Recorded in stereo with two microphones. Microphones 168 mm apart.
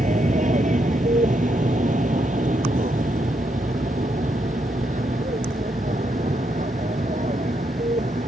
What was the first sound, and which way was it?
An aircraft, 50° right (ahead or behind).